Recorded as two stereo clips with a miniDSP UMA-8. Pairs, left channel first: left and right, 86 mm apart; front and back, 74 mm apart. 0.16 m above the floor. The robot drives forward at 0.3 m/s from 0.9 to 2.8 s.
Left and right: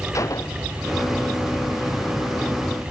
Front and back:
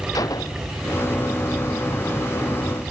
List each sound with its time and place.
0.1 s a gunshot: 35° left